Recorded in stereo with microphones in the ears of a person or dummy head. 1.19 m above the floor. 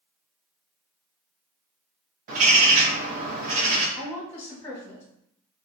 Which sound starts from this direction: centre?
A woman speaking, at 4.0 s.